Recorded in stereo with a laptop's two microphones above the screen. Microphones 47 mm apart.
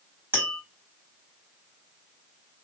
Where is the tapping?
55° right (ahead or behind), 1.8 m.